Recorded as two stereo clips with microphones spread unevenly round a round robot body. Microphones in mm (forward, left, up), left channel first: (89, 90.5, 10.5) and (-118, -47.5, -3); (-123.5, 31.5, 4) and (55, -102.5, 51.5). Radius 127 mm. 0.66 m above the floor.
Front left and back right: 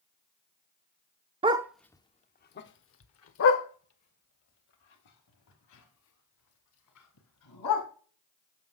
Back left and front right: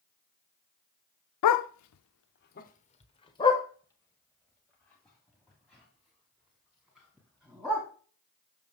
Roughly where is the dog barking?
Behind left.